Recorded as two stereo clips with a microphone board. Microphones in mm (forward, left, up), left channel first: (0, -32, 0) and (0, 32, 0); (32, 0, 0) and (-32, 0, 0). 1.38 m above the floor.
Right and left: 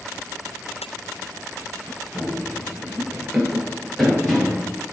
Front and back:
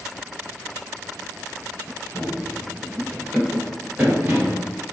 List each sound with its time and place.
2.1 s running footsteps: 10° right, 1.8 m; by 4.7 s 175° right, 1.8 m